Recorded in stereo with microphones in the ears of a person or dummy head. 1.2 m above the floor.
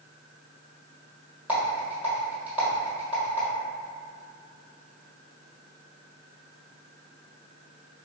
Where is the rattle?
15° right (ahead or behind), 1.6 m.